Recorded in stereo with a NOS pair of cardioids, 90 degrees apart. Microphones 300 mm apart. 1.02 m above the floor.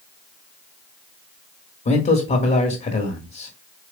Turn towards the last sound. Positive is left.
turn(degrees=35)